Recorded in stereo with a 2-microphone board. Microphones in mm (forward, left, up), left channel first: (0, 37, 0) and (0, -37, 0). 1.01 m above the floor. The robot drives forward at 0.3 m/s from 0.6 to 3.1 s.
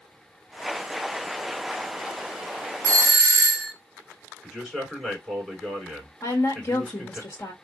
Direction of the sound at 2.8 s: 40° right (ahead or behind).